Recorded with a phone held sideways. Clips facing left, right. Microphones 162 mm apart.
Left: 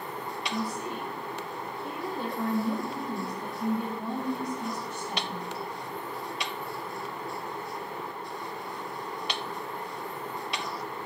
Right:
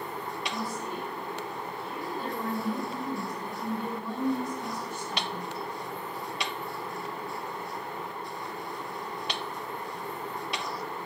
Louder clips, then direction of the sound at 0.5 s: Left 4 dB; 55° left (ahead or behind).